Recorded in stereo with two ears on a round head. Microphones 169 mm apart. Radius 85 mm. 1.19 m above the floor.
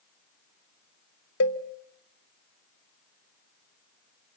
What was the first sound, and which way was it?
A cowbell, 70° left (ahead or behind).